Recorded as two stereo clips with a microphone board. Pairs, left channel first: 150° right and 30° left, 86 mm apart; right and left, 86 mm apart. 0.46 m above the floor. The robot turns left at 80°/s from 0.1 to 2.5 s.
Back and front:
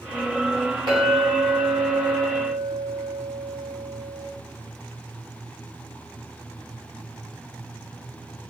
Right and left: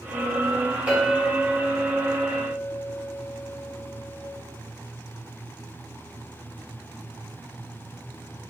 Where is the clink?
15° left, 1.7 m; by 4.3 s 115° right, 1.7 m.